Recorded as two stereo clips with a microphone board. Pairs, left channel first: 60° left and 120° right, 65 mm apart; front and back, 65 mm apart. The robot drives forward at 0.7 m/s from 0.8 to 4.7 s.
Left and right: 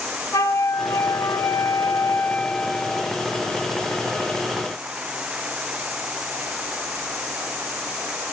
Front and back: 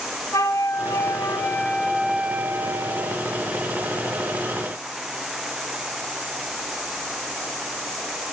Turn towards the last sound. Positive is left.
turn(degrees=165)